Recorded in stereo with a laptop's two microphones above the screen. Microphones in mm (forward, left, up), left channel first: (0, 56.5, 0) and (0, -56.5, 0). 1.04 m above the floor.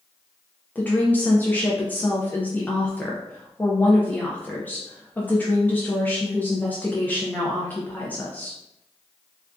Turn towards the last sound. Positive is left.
turn(degrees=15)  # may be behind; listen again after turning